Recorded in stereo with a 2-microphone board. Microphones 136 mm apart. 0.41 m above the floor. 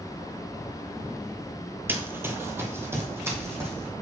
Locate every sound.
1.9 s running footsteps: 15° right (ahead or behind), 0.6 m; by 3.9 s 20° right (ahead or behind), 1.7 m